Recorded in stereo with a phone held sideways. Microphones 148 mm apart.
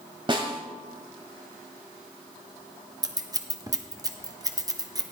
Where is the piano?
No piano in this recording.